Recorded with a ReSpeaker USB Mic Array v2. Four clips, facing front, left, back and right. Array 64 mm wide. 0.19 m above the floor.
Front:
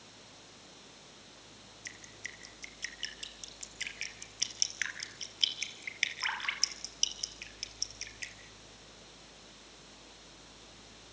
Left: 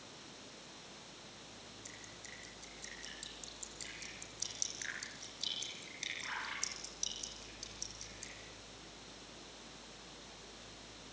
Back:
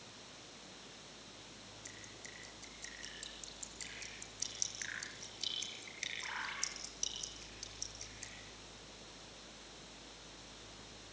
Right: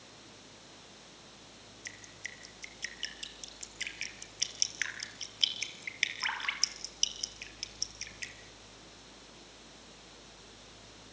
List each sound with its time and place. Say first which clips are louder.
1.9 s dripping: right 11 dB, front 10 dB; 45° right, 3.5 m